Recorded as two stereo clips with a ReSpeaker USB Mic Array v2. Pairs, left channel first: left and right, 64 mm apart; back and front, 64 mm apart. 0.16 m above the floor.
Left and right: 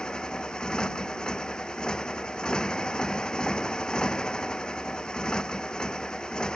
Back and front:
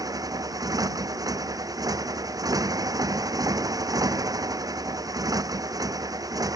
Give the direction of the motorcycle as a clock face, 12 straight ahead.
12 o'clock.